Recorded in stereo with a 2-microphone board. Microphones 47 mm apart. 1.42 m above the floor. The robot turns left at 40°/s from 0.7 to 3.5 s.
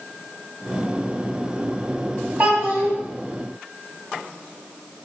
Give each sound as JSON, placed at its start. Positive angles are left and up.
{"t": 2.4, "sound": "a child speaking", "side_deg": -50, "distance_m": 1.8}